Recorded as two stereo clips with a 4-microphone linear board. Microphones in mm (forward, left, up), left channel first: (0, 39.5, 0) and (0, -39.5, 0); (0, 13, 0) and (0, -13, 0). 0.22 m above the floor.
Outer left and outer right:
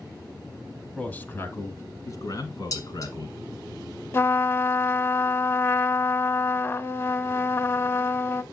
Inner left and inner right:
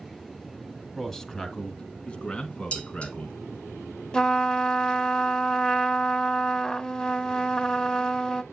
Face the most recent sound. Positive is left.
turn(degrees=30)  # may be behind; listen again after turning